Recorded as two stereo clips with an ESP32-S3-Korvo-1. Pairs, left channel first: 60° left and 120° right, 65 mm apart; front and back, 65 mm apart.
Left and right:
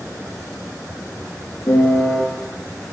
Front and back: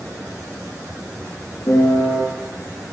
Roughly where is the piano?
Ahead left.